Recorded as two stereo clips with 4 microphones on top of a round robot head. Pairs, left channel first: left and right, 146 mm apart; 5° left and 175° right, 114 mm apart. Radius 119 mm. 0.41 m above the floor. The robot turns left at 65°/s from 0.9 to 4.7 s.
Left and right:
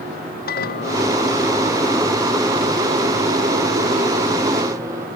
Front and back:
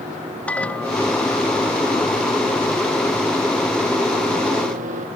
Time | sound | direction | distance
0.5 | a microwave | 85° left | ?